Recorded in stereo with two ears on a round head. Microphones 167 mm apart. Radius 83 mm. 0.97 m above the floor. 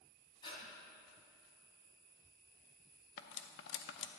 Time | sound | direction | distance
0.4 | breathing | 25° left (ahead or behind) | 2.5 m
3.2 | cutlery clinking | 65° left (ahead or behind) | 0.6 m